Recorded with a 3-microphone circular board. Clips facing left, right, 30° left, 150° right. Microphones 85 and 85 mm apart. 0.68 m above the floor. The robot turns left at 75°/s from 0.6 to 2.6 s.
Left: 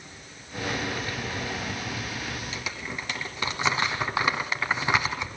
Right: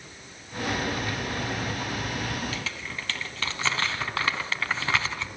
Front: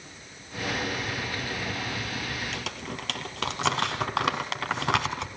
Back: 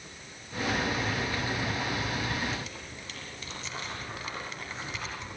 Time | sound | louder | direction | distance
2.5 | crumpling | even, front 4 dB | 20° left | 2.5 m